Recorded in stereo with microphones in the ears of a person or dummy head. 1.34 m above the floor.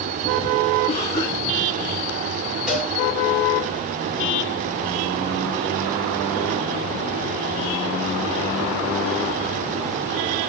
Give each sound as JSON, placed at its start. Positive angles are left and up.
{"t": 0.9, "sound": "a cough", "side_deg": 30, "distance_m": 3.5}
{"t": 2.7, "sound": "a cowbell", "side_deg": 0, "distance_m": 4.0}